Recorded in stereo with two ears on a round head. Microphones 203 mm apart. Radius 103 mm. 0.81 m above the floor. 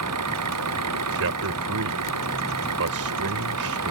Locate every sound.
0.0 s an engine running: 85° right
1.1 s a man speaking: 75° right (ahead or behind)